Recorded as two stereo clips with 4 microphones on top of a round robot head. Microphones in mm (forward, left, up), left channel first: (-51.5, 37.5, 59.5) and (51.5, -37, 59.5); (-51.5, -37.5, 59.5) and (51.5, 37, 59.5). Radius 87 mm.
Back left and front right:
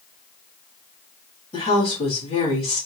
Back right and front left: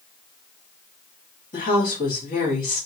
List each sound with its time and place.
1.5 s a woman speaking: 170° right, 3.5 m